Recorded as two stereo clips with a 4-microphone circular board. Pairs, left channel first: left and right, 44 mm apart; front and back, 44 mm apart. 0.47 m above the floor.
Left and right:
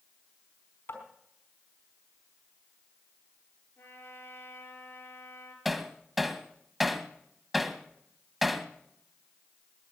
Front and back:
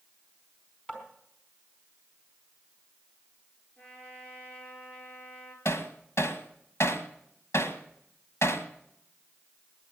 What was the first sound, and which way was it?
Tapping, 65° left.